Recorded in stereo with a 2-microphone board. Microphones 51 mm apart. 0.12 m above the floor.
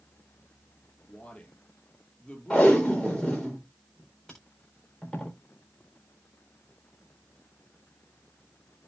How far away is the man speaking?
About 4 m.